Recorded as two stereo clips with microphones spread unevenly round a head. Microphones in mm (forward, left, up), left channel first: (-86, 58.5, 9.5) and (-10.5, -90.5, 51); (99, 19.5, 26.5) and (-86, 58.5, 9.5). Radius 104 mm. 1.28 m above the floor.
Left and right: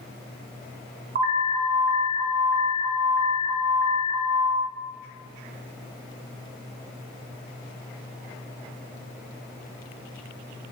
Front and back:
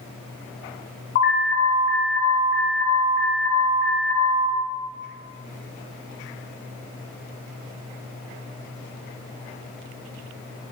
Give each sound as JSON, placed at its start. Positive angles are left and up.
{"t": 1.1, "sound": "an alarm", "azimuth_deg": -35, "distance_m": 0.9}